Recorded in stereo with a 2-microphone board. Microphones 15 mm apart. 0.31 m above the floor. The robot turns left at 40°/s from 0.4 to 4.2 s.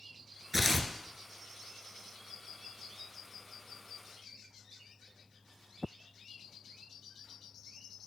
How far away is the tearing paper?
About 0.8 m.